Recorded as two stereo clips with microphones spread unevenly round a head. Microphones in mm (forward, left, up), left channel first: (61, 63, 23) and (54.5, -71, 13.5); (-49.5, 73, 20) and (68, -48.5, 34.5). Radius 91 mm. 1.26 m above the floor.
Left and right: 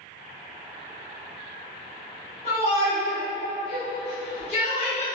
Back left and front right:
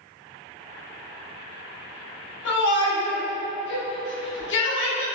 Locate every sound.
2.5 s a shout: 145° left, 1.2 m